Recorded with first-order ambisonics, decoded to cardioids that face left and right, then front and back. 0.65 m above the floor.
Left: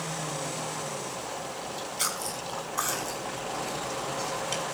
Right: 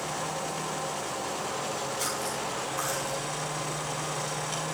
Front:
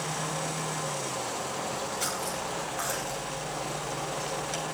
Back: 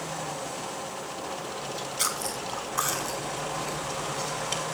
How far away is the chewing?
About 5 m.